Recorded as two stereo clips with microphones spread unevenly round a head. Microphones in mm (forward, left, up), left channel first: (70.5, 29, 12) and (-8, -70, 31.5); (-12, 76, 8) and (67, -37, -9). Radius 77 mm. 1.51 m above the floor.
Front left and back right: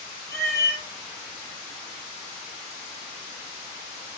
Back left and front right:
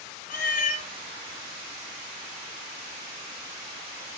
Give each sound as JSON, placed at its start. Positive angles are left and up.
{"t": 0.3, "sound": "a cat meowing", "azimuth_deg": 125, "distance_m": 3.0}